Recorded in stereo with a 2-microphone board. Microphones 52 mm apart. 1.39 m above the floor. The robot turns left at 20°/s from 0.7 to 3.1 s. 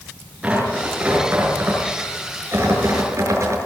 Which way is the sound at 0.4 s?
20° right (ahead or behind).